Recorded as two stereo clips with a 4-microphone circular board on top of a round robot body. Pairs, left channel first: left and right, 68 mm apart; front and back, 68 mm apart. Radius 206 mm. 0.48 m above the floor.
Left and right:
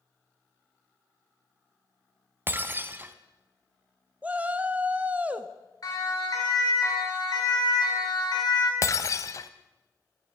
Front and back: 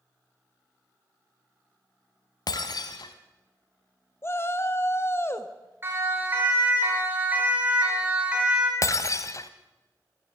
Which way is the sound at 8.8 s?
45° left.